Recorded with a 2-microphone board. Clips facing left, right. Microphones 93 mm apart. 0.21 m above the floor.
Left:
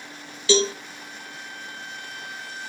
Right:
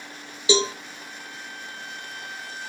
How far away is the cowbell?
About 1.3 m.